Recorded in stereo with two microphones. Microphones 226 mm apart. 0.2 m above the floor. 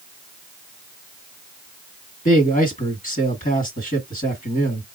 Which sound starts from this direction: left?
A man speaking, at 2.2 s.